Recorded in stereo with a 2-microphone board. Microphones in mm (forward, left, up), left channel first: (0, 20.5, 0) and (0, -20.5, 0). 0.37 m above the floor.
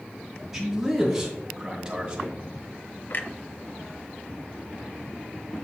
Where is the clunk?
45° left (ahead or behind), 0.6 m.